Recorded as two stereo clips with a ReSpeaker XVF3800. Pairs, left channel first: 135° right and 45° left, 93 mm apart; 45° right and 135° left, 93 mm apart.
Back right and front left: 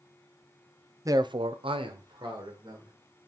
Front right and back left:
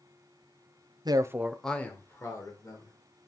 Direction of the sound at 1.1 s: 100° left.